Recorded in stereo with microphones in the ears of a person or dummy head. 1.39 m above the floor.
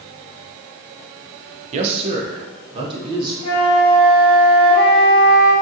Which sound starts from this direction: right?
A man speaking, at 1.7 s.